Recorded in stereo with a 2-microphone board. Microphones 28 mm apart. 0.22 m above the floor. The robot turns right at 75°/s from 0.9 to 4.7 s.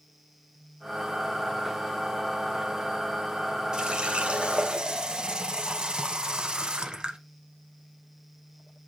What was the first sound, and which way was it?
A running tap, 130° right.